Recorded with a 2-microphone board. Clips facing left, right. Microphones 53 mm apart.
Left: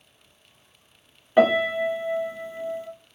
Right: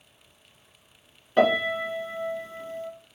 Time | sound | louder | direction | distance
1.4 | a piano | left 3 dB | 15° left (ahead or behind) | 1.0 m